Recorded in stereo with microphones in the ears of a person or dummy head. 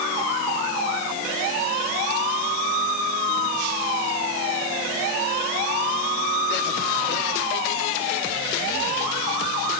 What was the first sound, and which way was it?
Only background noise.